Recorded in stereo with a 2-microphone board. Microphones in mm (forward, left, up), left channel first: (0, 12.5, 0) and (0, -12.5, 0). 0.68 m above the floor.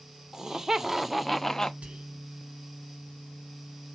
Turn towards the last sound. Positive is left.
turn(degrees=-60)  # may be behind; listen again after turning